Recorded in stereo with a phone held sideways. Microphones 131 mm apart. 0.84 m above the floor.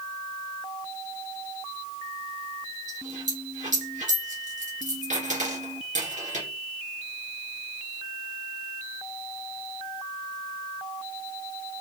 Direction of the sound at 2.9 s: 70° right (ahead or behind).